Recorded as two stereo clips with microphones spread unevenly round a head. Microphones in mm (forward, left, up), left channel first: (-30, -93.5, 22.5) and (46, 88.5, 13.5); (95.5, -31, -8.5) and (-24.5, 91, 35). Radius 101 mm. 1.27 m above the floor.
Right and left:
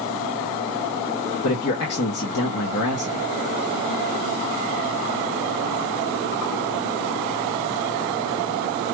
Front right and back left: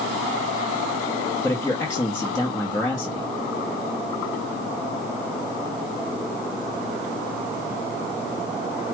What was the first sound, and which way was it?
A man speaking, 120° right.